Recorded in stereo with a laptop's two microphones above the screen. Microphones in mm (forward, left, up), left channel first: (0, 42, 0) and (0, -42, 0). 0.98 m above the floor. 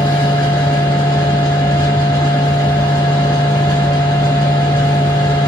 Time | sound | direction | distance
0.0 | a machine running | 45° left (ahead or behind) | 2 m